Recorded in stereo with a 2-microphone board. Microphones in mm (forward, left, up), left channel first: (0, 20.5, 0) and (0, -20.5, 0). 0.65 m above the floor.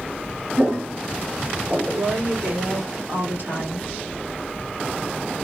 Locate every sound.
0.6 s footsteps: 70° right (ahead or behind), 2 m; by 2.6 s 50° right (ahead or behind), 0.9 m
1.9 s a woman speaking: 60° right (ahead or behind), 1.6 m